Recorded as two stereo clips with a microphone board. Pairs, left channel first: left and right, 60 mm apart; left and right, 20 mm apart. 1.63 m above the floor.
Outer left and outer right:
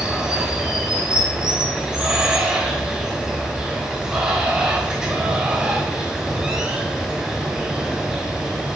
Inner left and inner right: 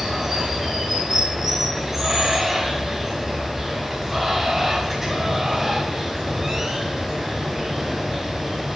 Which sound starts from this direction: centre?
Running water, at 0.0 s.